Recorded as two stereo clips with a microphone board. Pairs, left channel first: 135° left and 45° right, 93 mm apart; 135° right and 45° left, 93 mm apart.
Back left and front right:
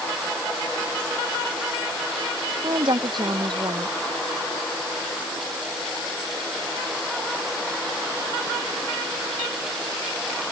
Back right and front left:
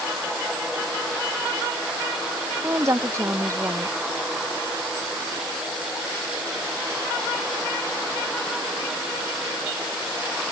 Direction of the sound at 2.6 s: 10° right.